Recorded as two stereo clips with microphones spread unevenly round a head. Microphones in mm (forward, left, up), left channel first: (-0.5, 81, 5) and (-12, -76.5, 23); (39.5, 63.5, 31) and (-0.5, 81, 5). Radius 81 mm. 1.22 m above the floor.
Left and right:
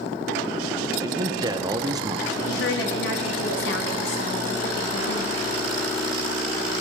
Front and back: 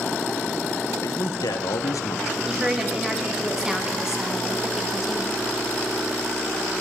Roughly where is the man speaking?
Ahead right.